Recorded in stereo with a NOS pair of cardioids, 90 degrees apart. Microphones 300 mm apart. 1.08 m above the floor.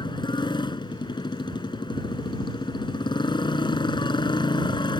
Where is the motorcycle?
15° left.